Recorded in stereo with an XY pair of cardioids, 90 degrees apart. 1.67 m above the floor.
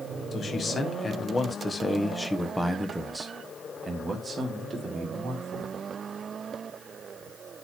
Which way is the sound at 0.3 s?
50° left.